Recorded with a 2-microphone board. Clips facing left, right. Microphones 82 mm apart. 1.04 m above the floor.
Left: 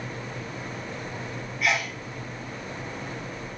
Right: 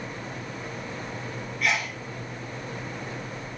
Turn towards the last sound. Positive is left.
turn(degrees=5)  # may be behind; listen again after turning